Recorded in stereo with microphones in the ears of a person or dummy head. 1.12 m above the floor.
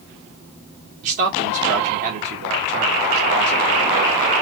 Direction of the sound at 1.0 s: 55° right (ahead or behind).